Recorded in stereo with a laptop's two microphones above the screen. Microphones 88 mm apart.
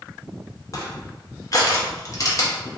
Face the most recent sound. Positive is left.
turn(degrees=40)  # may be behind; listen again after turning